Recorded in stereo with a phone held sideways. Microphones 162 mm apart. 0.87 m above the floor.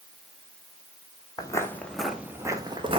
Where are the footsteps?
25° left (ahead or behind), 1.0 m; by 3.0 s 35° right (ahead or behind), 1.0 m.